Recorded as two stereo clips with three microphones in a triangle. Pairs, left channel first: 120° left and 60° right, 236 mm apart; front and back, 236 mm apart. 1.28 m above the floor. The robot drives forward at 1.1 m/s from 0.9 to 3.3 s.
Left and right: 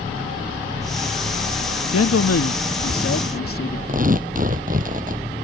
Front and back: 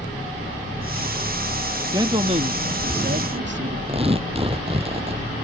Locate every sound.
1.9 s a man speaking: 105° left; by 3.8 s 140° left
3.9 s tearing paper: 115° right